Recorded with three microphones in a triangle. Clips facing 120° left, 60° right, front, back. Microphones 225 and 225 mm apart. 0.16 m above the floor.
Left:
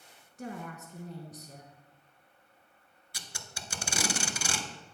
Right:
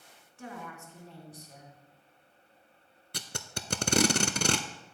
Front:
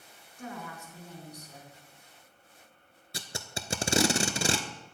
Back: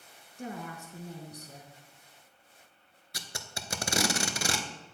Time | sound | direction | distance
0.4 | a woman speaking | 140° left | 1.5 m
3.1 | tape being pulled | 55° right | 0.5 m